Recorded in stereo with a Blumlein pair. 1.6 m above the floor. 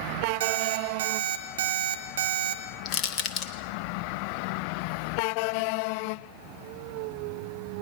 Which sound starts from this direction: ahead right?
An alarm clock, at 0.4 s.